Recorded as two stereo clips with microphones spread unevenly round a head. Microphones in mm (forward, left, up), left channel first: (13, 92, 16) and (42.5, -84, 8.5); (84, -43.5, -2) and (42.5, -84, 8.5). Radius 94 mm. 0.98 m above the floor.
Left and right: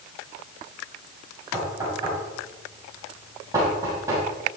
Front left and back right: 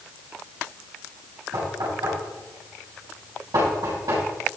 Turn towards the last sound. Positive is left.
turn(degrees=-155)